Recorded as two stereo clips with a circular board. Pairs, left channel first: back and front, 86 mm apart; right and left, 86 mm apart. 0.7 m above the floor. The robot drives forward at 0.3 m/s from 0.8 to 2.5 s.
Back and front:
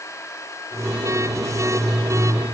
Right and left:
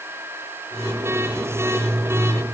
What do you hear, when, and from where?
Only background noise.